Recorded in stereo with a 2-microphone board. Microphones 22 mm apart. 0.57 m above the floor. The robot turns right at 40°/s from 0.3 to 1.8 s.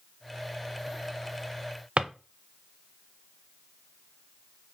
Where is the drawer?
65° right (ahead or behind), 0.6 m.